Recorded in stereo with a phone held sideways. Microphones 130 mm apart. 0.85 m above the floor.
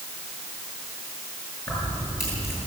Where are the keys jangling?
20° left (ahead or behind), 8.5 m.